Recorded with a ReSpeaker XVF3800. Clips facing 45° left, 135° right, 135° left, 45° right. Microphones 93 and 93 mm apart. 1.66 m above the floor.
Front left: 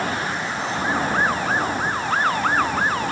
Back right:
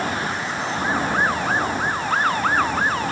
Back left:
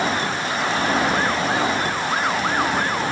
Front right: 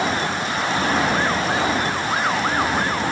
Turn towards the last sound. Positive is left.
No sound to turn to.